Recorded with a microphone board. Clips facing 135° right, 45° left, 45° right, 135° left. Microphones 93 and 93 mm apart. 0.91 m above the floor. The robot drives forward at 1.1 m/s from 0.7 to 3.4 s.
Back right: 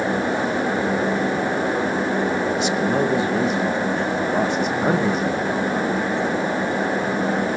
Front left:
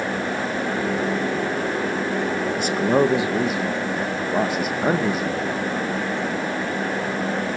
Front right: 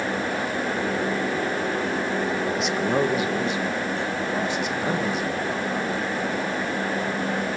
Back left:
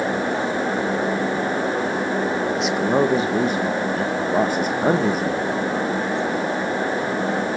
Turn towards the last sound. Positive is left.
turn(degrees=130)